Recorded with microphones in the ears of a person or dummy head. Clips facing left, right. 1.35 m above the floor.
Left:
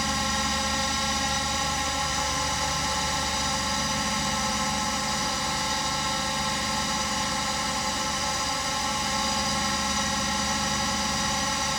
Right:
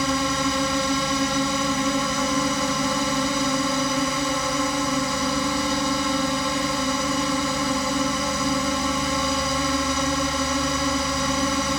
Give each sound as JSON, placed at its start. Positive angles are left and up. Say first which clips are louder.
{"t": 0.0, "sound": "a drone", "louder": "right 7 dB", "side_deg": -60}